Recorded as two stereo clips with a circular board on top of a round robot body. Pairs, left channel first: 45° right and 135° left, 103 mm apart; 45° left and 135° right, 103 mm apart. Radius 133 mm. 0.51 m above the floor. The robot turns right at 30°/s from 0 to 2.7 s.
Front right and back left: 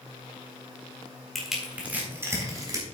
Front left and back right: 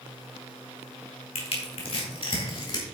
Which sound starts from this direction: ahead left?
Crushing, at 1.4 s.